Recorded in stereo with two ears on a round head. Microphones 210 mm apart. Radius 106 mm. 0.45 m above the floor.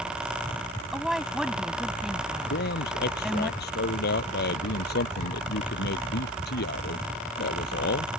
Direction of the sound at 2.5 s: 50° left (ahead or behind).